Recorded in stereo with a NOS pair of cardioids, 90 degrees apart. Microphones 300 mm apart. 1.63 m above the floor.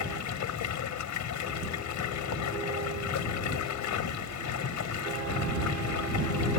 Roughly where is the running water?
Left.